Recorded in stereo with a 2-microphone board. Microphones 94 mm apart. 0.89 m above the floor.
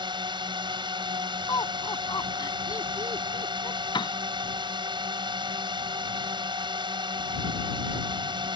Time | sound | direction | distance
0.0 | a drone | 55° right (ahead or behind) | ?
1.5 | laughter | 40° left (ahead or behind) | ?
3.9 | a piano | 55° left (ahead or behind) | ?